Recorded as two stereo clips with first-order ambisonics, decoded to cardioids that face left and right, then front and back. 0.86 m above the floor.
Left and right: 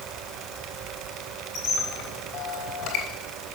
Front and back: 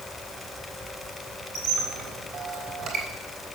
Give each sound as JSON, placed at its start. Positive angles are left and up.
{"t": 1.6, "sound": "a squeak", "azimuth_deg": 140, "distance_m": 3.5}